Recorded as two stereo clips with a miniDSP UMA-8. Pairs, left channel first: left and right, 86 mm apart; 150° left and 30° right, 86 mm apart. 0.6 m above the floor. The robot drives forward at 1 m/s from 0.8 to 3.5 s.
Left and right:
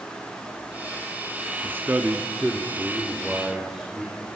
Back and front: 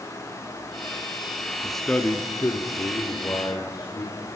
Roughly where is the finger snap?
No finger snap in this recording.